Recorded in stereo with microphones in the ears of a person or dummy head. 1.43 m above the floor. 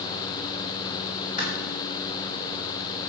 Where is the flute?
I don't hear a flute.